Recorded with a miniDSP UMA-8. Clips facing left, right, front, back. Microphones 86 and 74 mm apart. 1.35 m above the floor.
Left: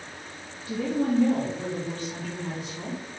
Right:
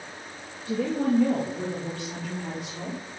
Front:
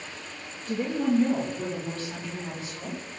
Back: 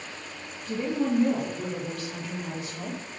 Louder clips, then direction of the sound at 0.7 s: Right 1 dB, front 1 dB; 90° right.